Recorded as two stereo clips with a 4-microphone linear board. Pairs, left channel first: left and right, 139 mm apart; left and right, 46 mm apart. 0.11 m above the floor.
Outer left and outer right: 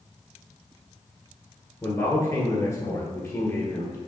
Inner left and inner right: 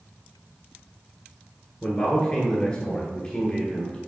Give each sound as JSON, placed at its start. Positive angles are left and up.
{"t": 1.8, "sound": "a man speaking", "side_deg": 25, "distance_m": 1.2}